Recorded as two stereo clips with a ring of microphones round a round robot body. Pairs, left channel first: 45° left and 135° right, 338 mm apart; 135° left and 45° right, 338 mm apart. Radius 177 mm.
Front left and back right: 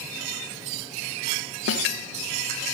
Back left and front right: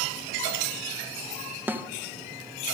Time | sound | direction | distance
1.7 | a snare drum | 35° left | 1.1 m